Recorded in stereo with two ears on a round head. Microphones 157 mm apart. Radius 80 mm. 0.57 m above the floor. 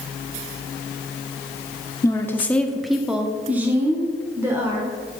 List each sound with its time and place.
2.0 s a woman speaking: 20° left (ahead or behind), 0.6 m; by 5.2 s 20° right (ahead or behind), 1.8 m